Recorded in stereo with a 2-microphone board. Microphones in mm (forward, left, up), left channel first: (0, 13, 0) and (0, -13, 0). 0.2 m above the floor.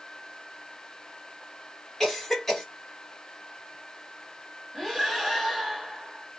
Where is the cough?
10° left (ahead or behind), 1.5 m.